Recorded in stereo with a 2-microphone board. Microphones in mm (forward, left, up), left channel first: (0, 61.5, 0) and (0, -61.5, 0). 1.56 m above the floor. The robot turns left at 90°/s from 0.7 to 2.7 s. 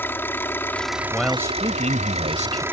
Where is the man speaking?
10° left; by 2.6 s 130° right.